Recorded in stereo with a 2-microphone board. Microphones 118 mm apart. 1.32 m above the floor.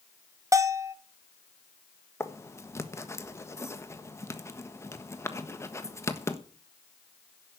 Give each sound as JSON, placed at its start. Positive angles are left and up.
{"t": 0.5, "sound": "a bell", "side_deg": -25, "distance_m": 0.9}
{"t": 2.2, "sound": "writing", "side_deg": 20, "distance_m": 1.4}